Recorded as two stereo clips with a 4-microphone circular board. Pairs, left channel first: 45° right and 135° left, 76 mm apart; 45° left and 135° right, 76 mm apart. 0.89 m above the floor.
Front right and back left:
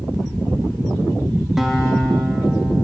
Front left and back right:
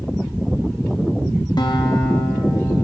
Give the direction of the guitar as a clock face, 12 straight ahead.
10 o'clock.